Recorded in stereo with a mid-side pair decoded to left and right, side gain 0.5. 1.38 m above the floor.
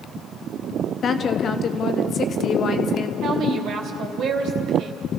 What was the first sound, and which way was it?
A woman speaking, 50° left.